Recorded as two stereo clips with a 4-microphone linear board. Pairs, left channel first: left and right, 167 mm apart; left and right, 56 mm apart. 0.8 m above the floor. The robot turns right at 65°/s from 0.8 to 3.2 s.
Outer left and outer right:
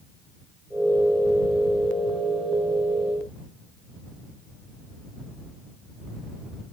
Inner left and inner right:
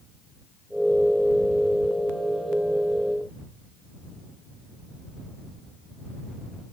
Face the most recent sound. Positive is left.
No sound to turn to.